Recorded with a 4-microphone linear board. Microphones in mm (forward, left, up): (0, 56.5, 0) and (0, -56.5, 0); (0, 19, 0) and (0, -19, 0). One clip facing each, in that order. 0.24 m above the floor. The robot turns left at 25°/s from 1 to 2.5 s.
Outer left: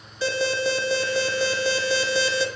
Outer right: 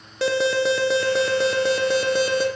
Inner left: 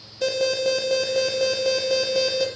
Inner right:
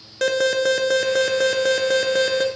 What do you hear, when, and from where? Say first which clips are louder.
0.2 s an alarm: outer right 4 dB, inner right 3 dB; 90° right, 2.5 m; by 2.5 s 125° right, 2.5 m